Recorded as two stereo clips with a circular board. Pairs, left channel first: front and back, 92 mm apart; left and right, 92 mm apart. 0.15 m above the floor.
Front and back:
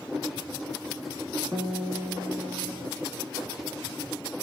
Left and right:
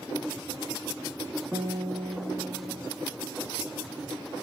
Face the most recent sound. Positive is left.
turn(degrees=-145)